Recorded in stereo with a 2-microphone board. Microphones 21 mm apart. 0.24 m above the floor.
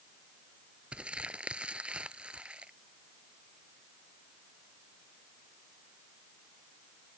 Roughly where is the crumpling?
Right.